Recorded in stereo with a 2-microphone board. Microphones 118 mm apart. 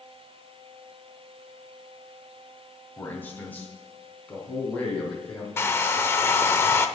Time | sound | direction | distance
3.0 | a man speaking | 20° left (ahead or behind) | 2.5 m
5.6 | a hair dryer | 20° left (ahead or behind) | 0.7 m